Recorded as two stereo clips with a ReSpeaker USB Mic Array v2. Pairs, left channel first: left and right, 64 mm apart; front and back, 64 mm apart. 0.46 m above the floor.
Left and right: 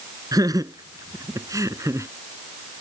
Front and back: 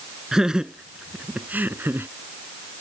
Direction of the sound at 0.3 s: 95° right.